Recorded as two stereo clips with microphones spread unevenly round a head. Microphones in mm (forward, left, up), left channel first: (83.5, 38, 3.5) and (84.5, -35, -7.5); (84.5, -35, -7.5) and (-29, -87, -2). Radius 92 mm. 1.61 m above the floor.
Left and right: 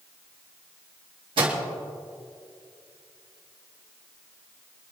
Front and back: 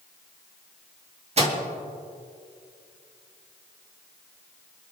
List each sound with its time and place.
1.4 s a microwave: 120° right, 2.5 m